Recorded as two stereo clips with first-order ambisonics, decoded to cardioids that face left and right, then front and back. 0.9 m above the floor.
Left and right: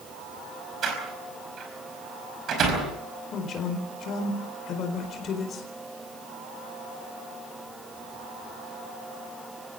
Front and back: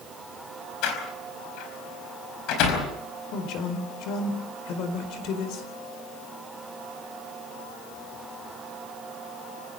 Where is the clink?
I don't hear a clink.